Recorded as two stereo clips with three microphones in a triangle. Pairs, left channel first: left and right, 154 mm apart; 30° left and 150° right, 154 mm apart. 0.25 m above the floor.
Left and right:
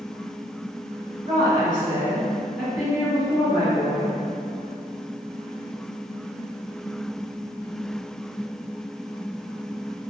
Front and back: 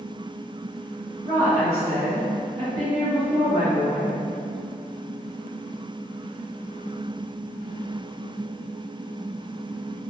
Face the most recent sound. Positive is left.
turn(degrees=170)